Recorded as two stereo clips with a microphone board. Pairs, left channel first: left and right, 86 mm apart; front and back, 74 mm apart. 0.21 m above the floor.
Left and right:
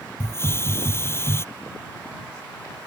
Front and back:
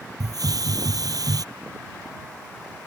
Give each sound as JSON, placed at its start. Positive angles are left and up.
{"t": 0.2, "sound": "a hiss", "azimuth_deg": 150}